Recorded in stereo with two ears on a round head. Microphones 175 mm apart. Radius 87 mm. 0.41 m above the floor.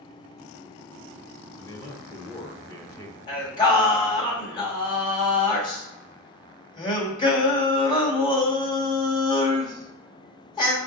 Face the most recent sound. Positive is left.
turn(degrees=25)  # may be behind; listen again after turning